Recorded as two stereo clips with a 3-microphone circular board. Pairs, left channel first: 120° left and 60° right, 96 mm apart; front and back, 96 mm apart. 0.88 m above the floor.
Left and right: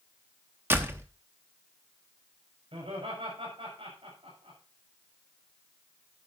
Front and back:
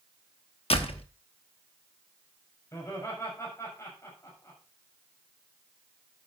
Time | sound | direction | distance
0.7 | a door slam | 5° left | 0.9 m
2.7 | laughter | 60° right | 5.5 m